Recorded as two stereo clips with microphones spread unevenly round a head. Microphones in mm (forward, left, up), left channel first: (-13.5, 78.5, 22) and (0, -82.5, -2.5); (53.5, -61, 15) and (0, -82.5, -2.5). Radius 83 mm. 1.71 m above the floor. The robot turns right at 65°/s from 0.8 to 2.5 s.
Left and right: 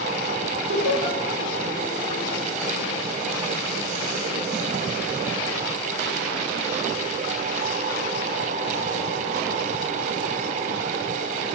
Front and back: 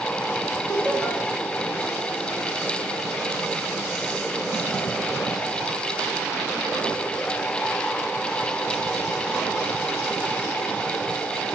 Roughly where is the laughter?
Ahead right.